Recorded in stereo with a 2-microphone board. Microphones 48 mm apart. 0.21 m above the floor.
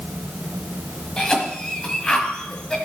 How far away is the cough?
About 1.2 m.